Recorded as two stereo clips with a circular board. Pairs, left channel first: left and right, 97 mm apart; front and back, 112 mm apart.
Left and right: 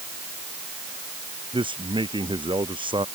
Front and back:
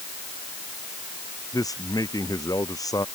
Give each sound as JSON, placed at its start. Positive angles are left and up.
{"t": 1.5, "sound": "a man speaking", "azimuth_deg": -60}